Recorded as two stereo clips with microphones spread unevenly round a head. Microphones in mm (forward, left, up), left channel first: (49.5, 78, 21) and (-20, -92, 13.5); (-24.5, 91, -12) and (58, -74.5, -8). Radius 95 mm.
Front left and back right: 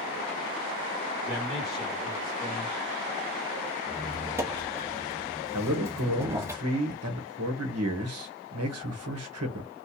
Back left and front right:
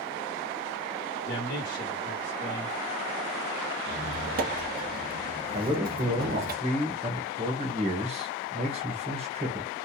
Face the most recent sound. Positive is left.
turn(degrees=-120)